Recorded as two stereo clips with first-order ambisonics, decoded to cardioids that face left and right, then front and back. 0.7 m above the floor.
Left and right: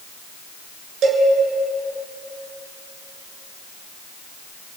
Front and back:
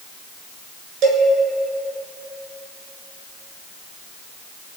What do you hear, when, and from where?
1.0 s a cowbell: 140° right, 3 m